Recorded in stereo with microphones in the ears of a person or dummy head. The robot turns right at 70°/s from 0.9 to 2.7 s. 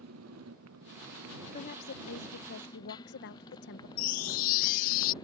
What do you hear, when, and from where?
0.0 s a motorcycle: 100° right; by 5.2 s 25° left
1.5 s a woman speaking: 35° left; by 3.9 s 115° left
4.0 s a chime: 50° left (ahead or behind)